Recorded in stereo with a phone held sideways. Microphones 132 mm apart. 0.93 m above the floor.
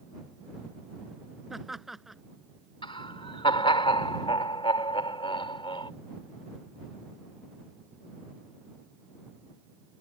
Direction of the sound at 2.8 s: 40° left (ahead or behind).